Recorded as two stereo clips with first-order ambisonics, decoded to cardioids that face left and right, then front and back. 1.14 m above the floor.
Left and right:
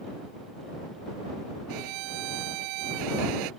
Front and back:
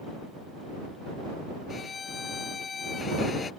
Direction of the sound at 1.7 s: 70° right.